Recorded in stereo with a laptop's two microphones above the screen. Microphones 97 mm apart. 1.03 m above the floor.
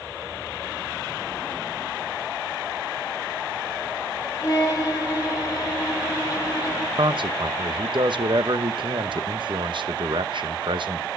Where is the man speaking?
65° right (ahead or behind), 0.9 m.